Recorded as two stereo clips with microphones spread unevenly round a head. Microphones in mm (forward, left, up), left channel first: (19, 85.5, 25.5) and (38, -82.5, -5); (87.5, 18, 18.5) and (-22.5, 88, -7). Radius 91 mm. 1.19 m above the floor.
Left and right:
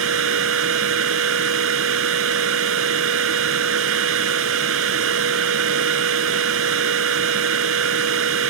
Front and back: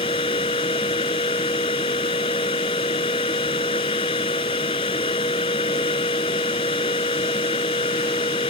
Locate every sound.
0.0 s a machine running: 95° right